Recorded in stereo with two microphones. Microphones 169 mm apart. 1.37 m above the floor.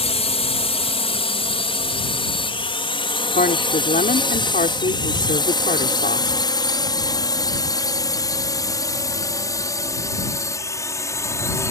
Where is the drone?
35° left (ahead or behind); by 11.7 s 15° left (ahead or behind).